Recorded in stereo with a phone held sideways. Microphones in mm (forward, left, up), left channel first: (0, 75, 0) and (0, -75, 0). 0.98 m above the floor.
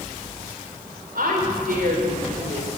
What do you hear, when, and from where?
1.1 s a woman speaking: 75° right (ahead or behind), 4 m